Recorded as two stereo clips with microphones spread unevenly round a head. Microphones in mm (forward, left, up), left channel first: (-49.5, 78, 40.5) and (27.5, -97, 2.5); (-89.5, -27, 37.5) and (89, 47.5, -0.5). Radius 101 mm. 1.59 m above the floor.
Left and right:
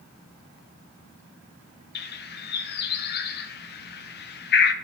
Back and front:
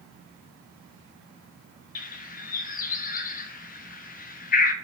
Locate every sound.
1.9 s a bird: 155° left, 0.5 m